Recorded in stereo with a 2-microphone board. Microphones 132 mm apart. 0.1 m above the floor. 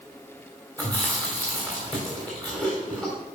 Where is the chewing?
5° left (ahead or behind), 4 m.